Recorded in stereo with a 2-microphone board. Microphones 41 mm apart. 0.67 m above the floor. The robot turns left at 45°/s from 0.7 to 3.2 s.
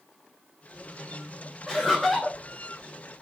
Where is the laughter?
5° right (ahead or behind), 0.6 m; by 2.4 s 10° left (ahead or behind), 0.6 m.